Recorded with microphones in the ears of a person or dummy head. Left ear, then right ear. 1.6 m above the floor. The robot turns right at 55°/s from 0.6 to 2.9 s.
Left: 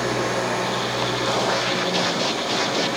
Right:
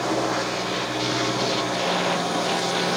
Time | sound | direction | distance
0.0 | an engine running | 155° left | 1.4 m